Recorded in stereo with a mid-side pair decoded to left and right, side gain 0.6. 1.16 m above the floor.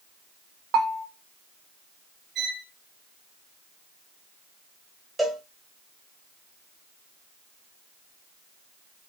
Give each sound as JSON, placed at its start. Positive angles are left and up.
{"t": 0.7, "sound": "a bell", "azimuth_deg": -55, "distance_m": 0.7}
{"t": 2.4, "sound": "a violin", "azimuth_deg": -45, "distance_m": 1.1}
{"t": 5.2, "sound": "a cowbell", "azimuth_deg": -5, "distance_m": 1.4}